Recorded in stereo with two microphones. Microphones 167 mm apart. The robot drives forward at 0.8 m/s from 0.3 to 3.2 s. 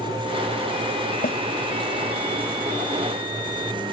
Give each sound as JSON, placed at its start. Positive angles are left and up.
{"t": 1.2, "sound": "a snare drum", "side_deg": 60}